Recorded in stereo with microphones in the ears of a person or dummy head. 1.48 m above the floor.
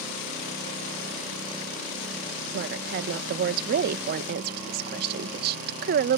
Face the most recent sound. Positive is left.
turn(degrees=-60)  # may be behind; listen again after turning